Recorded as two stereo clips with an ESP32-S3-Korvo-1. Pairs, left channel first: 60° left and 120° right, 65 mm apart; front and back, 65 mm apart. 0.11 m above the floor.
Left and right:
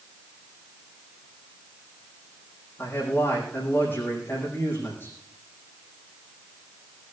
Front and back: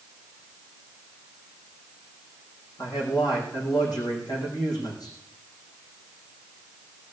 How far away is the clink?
I don't hear a clink.